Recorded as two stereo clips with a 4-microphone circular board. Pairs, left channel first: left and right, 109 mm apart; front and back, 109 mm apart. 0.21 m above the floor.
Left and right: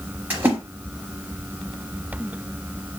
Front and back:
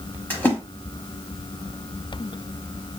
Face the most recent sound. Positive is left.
turn(degrees=-45)